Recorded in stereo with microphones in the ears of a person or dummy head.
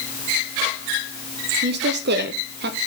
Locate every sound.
1.6 s a woman speaking: 45° right (ahead or behind), 0.6 m